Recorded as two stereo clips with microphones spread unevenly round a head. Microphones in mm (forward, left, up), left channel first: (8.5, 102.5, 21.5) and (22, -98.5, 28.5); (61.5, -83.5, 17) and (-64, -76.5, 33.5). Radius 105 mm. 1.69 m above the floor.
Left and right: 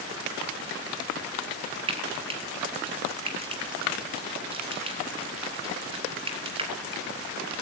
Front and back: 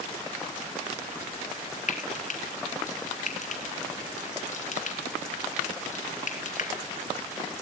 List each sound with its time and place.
1.9 s frying: 20° right, 4 m